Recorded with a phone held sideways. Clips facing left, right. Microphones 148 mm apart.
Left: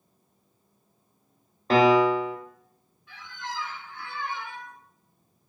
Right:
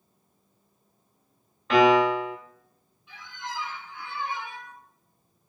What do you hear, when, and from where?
1.7 s a piano: 35° left (ahead or behind), 0.6 m
3.1 s a squeak: 20° right (ahead or behind), 0.8 m